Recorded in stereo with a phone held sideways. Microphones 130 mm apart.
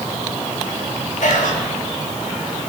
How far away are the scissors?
No scissors in this recording.